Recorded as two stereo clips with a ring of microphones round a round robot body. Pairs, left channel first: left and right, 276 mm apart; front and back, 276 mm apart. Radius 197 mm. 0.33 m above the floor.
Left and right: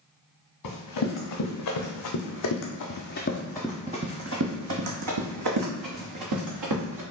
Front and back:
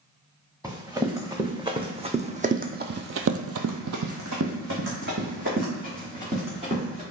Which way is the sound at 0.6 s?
100° left.